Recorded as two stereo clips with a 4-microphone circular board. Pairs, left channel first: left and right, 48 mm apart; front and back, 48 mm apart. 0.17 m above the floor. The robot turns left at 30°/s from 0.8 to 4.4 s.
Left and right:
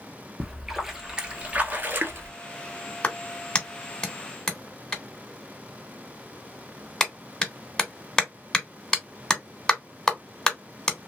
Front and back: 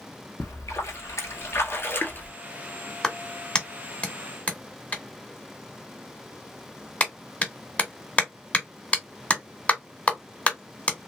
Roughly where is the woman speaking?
No woman speaking in this recording.